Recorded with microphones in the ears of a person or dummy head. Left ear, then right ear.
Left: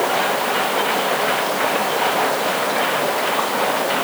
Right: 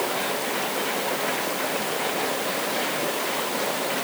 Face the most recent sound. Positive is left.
turn(degrees=40)  # may be behind; listen again after turning